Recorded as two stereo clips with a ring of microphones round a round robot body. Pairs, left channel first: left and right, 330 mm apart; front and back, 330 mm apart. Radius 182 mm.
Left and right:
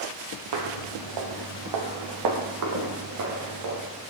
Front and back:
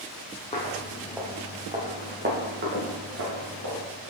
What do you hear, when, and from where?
0.5 s footsteps: 75° right, 0.9 m; by 3.8 s 125° right, 2.5 m